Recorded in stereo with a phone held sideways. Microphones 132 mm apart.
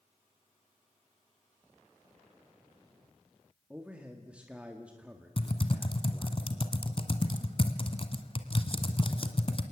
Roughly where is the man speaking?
Centre.